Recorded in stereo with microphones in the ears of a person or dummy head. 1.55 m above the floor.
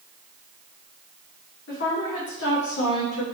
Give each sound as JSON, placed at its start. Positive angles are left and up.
{"t": 1.7, "sound": "a woman speaking", "side_deg": 60, "distance_m": 0.9}